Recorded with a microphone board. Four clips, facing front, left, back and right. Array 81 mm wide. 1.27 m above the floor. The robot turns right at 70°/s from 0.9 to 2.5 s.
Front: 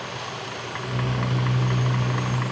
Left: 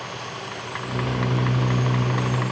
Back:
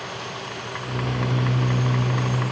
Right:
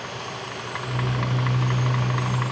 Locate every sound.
Only background noise.